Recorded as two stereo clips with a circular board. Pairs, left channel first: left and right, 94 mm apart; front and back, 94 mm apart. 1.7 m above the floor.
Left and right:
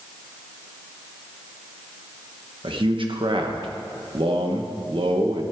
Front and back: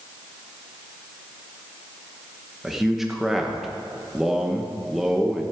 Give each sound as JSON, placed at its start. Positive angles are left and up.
{"t": 2.6, "sound": "a man speaking", "azimuth_deg": -90, "distance_m": 1.3}